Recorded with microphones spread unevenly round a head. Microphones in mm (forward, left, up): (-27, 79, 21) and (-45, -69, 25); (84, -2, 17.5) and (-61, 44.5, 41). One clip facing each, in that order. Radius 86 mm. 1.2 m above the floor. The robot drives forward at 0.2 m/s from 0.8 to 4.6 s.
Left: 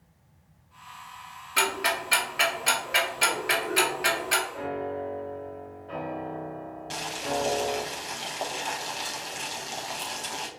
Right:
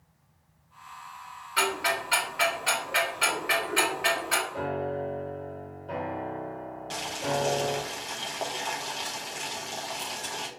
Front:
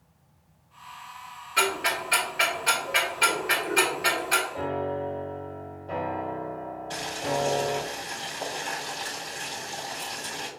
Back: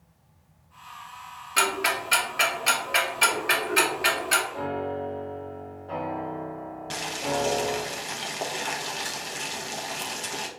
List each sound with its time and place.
1.6 s ticking: 120° left, 1.7 m; by 4.4 s 135° left, 2 m
4.5 s a piano: 75° right, 0.7 m; by 7.8 s 80° right, 0.7 m
6.9 s boiling: 165° left, 0.8 m